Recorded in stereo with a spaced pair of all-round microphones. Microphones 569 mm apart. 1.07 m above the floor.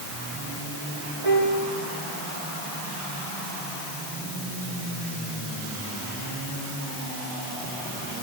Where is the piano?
70° right (ahead or behind), 5.5 m.